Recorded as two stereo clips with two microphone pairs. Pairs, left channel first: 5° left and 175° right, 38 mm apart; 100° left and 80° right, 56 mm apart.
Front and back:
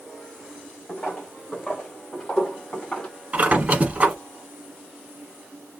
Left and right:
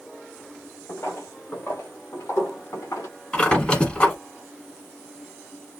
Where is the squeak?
155° left, 1.1 m.